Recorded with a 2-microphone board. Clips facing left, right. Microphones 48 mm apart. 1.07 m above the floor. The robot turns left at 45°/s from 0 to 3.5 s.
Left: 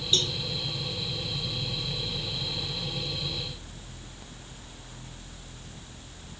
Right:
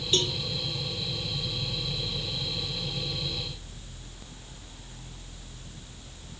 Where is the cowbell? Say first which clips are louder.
Right 1 dB; 35° right (ahead or behind); by 0.4 s 25° right (ahead or behind).